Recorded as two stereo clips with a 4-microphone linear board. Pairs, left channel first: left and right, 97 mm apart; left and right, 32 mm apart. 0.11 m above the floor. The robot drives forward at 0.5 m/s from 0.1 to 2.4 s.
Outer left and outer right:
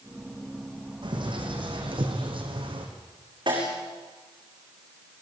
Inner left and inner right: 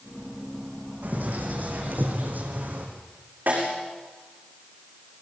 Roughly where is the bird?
Right.